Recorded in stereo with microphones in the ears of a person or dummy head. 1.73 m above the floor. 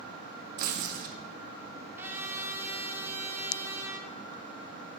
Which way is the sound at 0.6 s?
50° right (ahead or behind).